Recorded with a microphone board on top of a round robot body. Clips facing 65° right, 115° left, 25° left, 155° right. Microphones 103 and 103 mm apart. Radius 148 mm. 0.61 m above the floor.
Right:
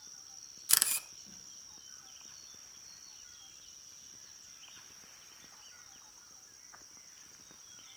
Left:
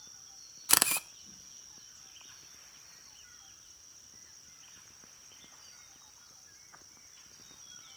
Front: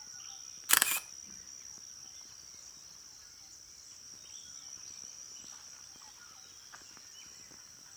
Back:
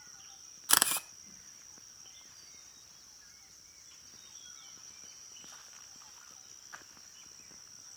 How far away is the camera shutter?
About 0.6 m.